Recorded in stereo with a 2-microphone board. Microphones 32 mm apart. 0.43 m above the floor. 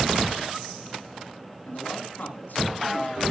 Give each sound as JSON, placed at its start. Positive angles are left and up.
{"t": 1.6, "sound": "a man speaking", "side_deg": 70, "distance_m": 4.0}